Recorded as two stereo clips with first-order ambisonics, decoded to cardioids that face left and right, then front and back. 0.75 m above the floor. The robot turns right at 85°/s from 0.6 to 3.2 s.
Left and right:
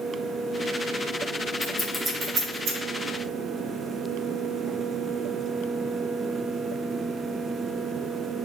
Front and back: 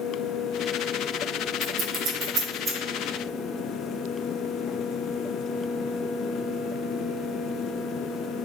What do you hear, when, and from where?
1.6 s scissors: 145° left, 0.9 m; by 2.8 s 120° right, 0.9 m